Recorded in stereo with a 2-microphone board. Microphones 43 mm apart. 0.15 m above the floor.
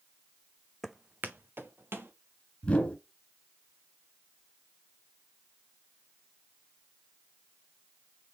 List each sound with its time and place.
0.8 s footsteps: centre (ahead or behind), 0.5 m; by 2.1 s 75° right (ahead or behind), 2 m
2.6 s a whoosh: 30° left (ahead or behind), 2 m